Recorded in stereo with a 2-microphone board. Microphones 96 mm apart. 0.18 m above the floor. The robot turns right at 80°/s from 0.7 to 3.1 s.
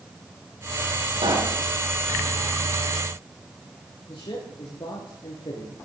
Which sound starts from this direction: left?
A man speaking, at 4.1 s.